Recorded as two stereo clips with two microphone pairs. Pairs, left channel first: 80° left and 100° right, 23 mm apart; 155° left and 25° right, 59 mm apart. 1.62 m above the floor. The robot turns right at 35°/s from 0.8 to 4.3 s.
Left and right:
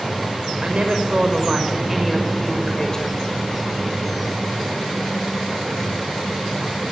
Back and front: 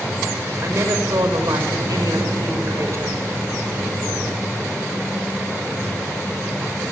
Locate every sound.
0.6 s a woman speaking: 60° right, 6.5 m; by 3.2 s 25° left, 6.5 m